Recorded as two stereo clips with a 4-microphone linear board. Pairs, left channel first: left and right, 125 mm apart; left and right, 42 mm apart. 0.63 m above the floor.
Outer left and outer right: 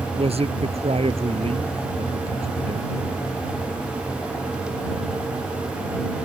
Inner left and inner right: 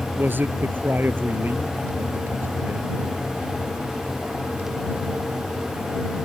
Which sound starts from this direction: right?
A man speaking, at 0.2 s.